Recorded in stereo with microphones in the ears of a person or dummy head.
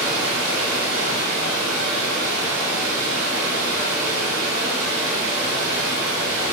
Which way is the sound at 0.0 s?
70° right (ahead or behind).